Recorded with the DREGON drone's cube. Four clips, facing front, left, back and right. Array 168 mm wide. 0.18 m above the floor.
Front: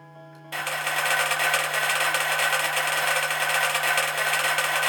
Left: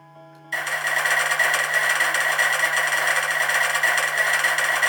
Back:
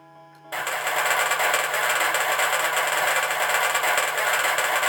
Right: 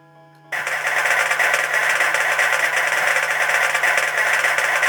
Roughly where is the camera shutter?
Right.